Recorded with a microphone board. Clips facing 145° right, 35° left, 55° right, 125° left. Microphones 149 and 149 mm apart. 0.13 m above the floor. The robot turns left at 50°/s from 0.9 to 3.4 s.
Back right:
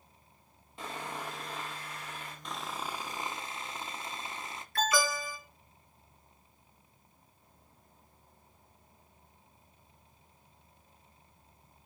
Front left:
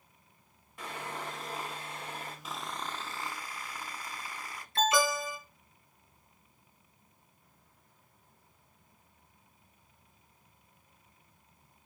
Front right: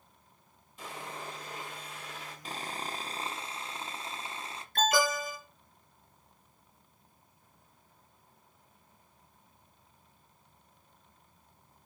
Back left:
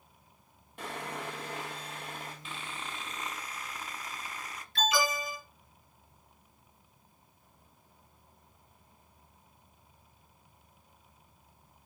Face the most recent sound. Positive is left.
turn(degrees=-25)